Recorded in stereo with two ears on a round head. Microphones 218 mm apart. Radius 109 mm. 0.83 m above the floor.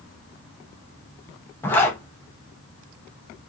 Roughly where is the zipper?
Centre.